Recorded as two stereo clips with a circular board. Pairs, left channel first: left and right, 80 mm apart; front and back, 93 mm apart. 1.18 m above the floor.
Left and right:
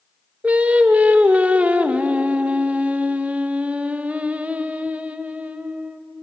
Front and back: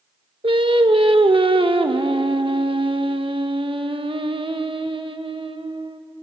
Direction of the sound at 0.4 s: 160° right.